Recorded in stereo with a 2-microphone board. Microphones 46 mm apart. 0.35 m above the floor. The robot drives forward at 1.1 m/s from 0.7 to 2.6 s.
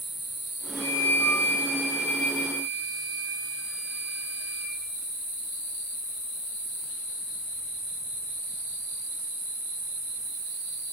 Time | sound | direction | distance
0.8 | a flute | 40° left (ahead or behind) | 0.8 m